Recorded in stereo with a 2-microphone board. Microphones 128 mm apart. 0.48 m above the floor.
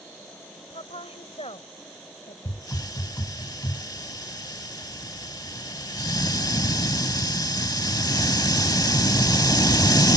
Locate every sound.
0.7 s a woman speaking: 55° left (ahead or behind)
2.5 s a hiss: 30° left (ahead or behind)